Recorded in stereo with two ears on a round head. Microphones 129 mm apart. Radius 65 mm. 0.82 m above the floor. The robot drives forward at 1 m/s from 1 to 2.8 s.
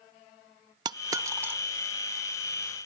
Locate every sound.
0.8 s a dropped coin: 30° right (ahead or behind), 0.5 m; by 1.6 s 15° right (ahead or behind), 1.1 m